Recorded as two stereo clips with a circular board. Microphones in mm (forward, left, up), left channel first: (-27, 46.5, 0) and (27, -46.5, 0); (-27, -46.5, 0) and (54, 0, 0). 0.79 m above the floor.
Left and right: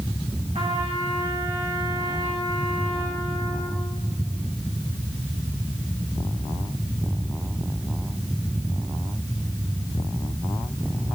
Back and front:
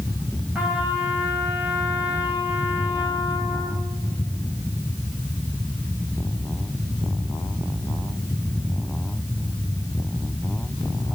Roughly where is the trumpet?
Ahead right.